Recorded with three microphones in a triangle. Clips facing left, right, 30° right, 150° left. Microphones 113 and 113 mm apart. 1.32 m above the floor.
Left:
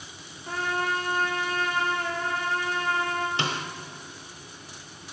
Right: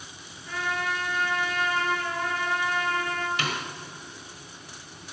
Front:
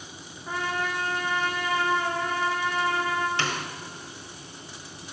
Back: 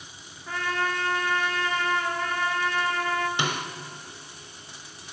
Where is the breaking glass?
I don't hear breaking glass.